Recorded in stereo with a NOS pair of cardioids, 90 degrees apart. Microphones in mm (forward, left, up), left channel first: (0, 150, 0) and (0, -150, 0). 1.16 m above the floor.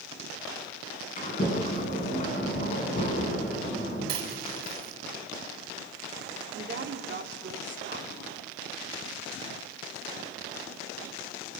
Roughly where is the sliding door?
Ahead left.